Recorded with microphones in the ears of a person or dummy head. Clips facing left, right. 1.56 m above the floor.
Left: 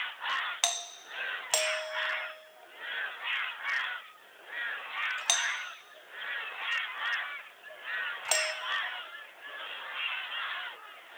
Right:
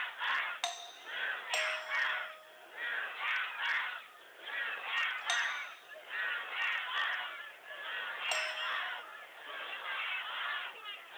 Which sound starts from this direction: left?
A doorbell, at 0.6 s.